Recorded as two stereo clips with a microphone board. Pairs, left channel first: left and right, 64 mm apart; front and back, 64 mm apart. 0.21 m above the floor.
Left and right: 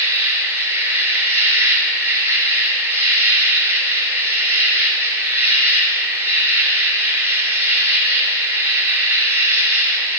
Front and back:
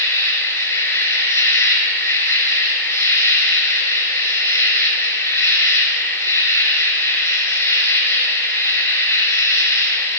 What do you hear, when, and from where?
0.0 s an insect: 35° right, 3 m